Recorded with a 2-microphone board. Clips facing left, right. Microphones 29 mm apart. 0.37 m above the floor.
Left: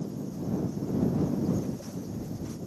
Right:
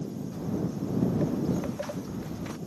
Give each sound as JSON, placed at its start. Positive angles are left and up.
{"t": 0.3, "sound": "footsteps", "side_deg": -80}